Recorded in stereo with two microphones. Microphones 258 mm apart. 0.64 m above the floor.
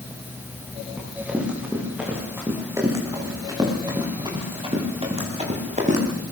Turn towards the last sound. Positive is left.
turn(degrees=-30)  # may be behind; listen again after turning